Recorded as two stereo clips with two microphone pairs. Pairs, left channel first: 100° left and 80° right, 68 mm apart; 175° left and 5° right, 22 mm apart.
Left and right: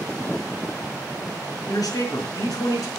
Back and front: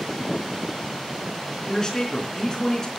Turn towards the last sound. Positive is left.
turn(degrees=120)